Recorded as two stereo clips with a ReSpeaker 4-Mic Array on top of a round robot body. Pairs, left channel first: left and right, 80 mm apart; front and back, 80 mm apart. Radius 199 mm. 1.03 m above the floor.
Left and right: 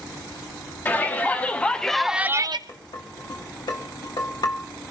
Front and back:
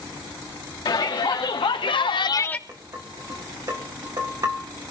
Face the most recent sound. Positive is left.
turn(degrees=130)